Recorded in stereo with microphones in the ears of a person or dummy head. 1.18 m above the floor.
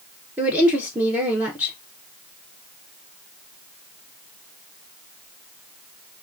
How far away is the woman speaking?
About 0.5 m.